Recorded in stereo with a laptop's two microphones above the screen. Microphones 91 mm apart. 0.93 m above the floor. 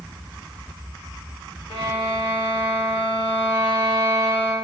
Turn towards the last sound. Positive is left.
turn(degrees=70)  # may be behind; listen again after turning